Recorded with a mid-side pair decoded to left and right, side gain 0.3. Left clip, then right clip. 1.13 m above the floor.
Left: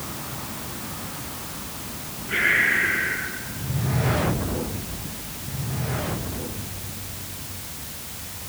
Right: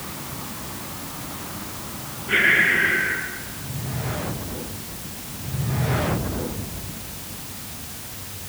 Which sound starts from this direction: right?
Breathing, at 2.3 s.